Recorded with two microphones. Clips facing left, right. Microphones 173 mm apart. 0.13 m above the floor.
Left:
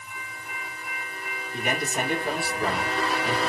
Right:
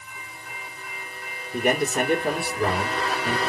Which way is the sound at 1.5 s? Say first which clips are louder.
Right 6 dB; 55° right (ahead or behind).